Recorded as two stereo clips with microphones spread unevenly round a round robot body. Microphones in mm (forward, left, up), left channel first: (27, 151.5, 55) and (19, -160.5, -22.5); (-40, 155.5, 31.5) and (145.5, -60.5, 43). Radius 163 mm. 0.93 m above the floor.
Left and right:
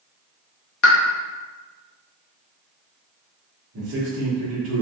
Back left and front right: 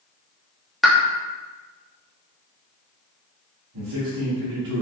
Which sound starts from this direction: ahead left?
A pop, at 0.8 s.